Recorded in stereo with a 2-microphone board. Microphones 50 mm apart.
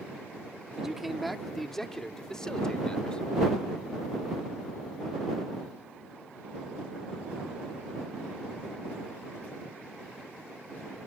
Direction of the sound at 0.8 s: 5° right (ahead or behind).